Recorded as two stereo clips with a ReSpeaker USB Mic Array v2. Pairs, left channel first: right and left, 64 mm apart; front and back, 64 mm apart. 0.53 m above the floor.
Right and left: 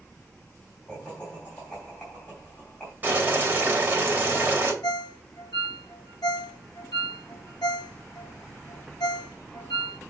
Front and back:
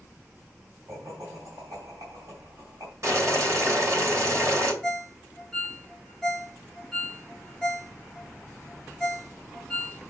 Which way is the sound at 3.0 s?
150° left.